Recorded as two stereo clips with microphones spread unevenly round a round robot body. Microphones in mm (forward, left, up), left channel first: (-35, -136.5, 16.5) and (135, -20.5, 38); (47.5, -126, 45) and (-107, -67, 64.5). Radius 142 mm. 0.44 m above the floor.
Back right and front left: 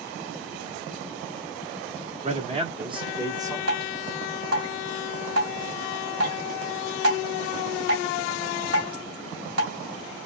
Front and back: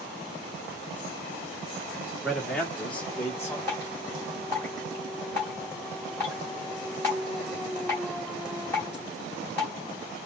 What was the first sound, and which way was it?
A man speaking, 55° left.